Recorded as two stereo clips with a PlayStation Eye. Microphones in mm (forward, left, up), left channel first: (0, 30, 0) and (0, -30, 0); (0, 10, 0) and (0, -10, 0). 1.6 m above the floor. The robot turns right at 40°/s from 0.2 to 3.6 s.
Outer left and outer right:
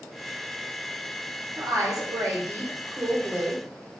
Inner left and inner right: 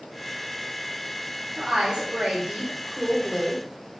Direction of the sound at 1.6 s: 105° right.